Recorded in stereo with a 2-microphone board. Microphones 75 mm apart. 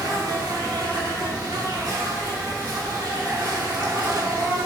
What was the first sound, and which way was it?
An insect, 50° right (ahead or behind).